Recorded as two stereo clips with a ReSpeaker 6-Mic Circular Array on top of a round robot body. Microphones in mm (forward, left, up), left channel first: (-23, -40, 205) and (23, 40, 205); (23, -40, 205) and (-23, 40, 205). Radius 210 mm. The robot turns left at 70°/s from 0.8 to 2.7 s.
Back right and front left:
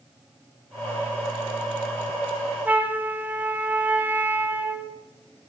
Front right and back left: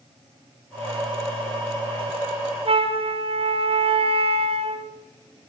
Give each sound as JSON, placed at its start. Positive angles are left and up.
{"t": 2.6, "sound": "a flute", "azimuth_deg": 135, "distance_m": 1.8}